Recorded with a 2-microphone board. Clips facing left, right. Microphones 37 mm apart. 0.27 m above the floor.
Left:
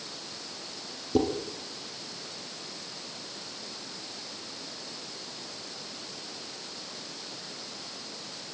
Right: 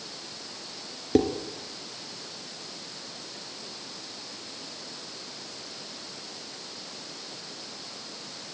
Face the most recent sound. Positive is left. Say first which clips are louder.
# right 3 dB
turn(degrees=-55)  # may be behind; listen again after turning